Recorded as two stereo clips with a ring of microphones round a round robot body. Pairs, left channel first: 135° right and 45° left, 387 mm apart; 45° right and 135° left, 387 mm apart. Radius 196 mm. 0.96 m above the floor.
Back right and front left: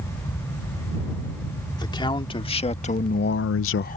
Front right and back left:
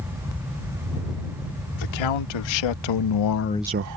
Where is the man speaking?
55° right; by 4.0 s 155° left.